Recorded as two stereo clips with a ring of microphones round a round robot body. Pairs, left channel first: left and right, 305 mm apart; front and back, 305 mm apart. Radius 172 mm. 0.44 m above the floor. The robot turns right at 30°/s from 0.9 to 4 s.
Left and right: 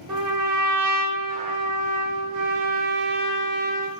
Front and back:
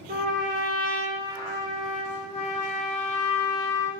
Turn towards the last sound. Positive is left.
turn(degrees=-25)